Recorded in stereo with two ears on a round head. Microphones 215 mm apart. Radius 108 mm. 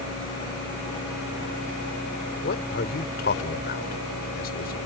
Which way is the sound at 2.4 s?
45° left (ahead or behind).